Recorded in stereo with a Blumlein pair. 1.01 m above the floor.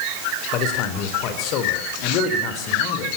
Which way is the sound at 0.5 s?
40° left.